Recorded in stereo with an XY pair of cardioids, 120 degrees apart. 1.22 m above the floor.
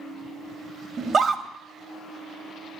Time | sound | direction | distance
1.0 | a scream | 45° right | 1.6 m